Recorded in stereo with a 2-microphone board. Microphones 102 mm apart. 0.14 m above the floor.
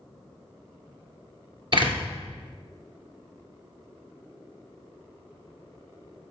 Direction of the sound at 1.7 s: 55° right (ahead or behind).